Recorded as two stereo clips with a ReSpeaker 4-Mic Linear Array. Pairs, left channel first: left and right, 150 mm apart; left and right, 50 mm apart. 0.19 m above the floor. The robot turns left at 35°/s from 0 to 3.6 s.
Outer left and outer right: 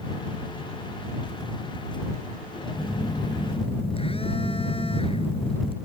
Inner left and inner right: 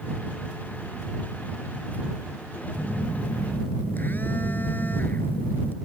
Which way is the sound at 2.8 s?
15° left (ahead or behind).